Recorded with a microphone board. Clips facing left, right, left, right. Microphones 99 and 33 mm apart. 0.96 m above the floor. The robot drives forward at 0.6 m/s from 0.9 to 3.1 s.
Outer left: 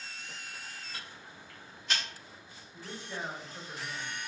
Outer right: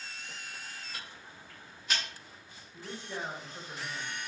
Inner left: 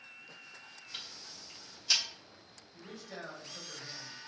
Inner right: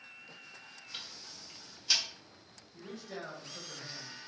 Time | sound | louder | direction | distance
0.9 | ticking | even, even | 5° right (ahead or behind) | 0.8 m
2.7 | a man speaking | outer right 1 dB, inner right 2 dB | 15° right (ahead or behind) | 1.3 m